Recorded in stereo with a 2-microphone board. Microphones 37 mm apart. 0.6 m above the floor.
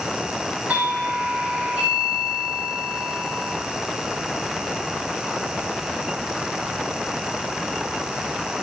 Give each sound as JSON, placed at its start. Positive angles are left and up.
{"t": 0.7, "sound": "a doorbell", "side_deg": -55, "distance_m": 5.5}